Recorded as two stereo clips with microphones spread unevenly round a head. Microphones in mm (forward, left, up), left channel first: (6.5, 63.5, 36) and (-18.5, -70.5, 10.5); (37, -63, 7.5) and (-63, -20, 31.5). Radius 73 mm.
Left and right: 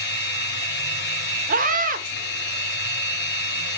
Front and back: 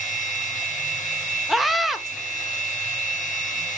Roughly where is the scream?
Right.